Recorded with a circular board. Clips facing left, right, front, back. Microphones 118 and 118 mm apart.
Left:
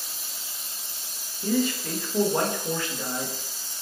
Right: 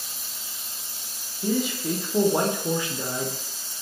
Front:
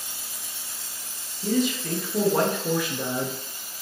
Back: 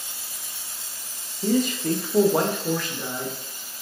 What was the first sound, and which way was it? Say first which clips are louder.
A man speaking: even, back 2 dB; 165° right.